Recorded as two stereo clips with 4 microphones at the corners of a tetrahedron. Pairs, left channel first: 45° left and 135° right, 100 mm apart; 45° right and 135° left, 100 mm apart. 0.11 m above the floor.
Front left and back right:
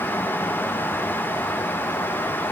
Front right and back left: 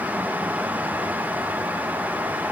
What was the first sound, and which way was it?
Only background noise.